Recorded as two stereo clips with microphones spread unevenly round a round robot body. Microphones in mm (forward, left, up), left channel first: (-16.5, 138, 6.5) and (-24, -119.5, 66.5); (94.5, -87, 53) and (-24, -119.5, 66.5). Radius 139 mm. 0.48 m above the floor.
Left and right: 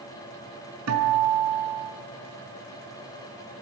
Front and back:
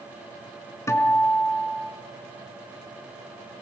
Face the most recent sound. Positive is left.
turn(degrees=-50)